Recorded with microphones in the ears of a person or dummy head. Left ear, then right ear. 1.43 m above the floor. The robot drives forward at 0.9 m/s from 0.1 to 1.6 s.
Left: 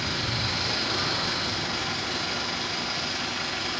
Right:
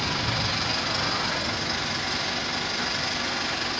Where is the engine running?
20° right (ahead or behind), 0.8 m; by 3.8 s 10° right (ahead or behind), 1.8 m.